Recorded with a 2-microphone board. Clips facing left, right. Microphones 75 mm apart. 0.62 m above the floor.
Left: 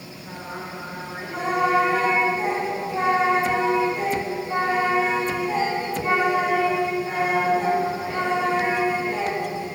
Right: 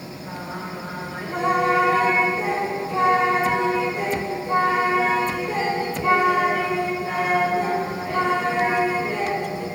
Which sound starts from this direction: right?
Singing, at 0.2 s.